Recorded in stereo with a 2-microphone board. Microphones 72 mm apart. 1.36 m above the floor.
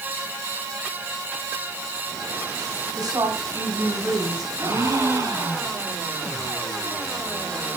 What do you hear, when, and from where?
2.9 s a woman speaking: 65° right (ahead or behind), 4.5 m
4.6 s a gasp: 50° right (ahead or behind), 7.5 m